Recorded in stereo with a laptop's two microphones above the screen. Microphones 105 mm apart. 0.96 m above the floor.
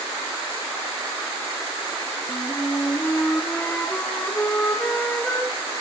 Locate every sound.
2.3 s a flute: 10° left (ahead or behind), 3.5 m